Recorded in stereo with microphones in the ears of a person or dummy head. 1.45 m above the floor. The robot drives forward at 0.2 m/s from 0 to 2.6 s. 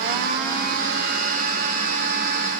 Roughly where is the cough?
No cough in this recording.